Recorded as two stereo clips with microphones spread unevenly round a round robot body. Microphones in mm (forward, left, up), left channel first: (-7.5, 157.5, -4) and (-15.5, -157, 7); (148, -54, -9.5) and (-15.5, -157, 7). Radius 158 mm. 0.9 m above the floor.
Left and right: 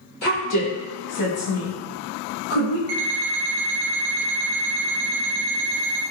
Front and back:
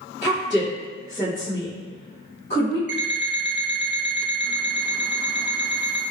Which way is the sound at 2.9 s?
115° right.